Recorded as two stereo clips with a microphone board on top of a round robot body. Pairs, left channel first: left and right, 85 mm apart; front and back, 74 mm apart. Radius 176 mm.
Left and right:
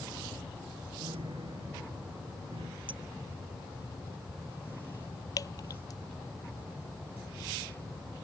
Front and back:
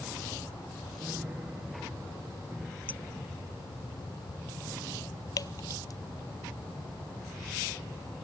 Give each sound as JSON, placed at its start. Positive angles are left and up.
{"t": 1.0, "sound": "a piano", "azimuth_deg": -110}
{"t": 2.9, "sound": "a clink", "azimuth_deg": -70}
{"t": 5.4, "sound": "dripping", "azimuth_deg": 40}